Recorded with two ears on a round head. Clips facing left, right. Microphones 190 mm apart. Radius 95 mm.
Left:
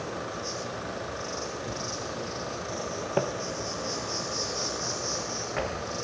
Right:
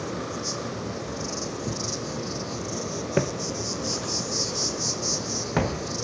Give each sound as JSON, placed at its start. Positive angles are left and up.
{"t": 0.0, "sound": "an insect", "side_deg": -50, "distance_m": 4.0}
{"t": 3.2, "sound": "footsteps", "side_deg": -30, "distance_m": 0.7}